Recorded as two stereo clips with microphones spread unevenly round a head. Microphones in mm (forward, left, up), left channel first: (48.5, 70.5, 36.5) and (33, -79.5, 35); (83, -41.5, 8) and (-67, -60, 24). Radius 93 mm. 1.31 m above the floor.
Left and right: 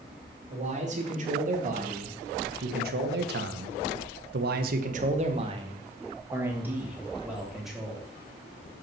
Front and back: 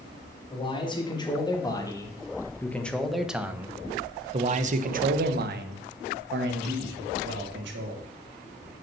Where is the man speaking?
50° right, 2.5 m; by 8.1 s 175° left, 2.5 m.